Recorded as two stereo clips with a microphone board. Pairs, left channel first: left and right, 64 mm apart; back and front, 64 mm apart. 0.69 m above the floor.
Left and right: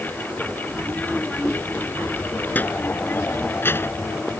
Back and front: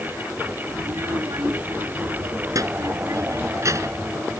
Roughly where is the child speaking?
Ahead.